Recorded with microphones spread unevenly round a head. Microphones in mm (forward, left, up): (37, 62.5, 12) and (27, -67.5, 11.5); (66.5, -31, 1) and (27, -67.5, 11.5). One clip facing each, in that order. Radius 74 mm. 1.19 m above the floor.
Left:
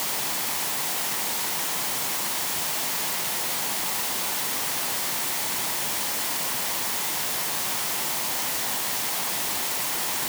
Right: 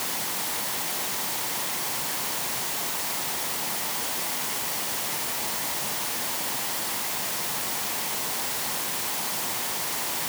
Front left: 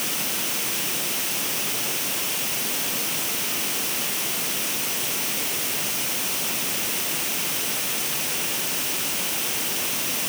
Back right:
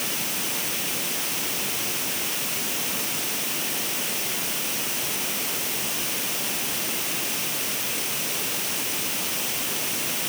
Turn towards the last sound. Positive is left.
No sound to turn to.